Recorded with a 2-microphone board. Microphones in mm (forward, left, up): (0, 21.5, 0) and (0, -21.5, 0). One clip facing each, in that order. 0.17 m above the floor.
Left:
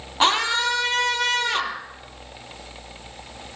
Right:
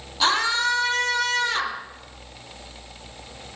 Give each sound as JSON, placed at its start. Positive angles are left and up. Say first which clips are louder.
{"t": 0.2, "sound": "a scream", "louder": "left 1 dB", "side_deg": 35, "distance_m": 4.5}